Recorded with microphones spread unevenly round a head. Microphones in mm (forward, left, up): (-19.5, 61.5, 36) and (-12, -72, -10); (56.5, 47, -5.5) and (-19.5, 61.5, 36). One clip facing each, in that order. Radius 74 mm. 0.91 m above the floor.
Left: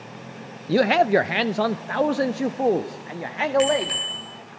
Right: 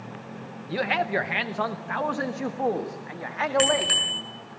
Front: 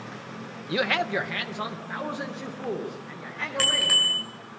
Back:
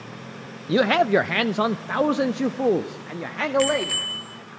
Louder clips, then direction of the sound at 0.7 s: Left 9 dB, back 8 dB; 90° left.